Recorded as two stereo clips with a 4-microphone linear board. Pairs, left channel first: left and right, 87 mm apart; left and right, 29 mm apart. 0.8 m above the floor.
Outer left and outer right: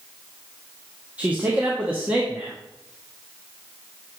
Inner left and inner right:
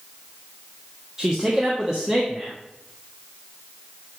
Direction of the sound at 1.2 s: 15° right (ahead or behind).